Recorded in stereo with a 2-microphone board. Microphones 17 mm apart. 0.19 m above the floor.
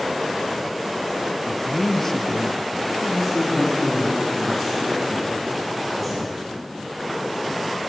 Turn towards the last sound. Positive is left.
turn(degrees=0)  # may be behind; listen again after turning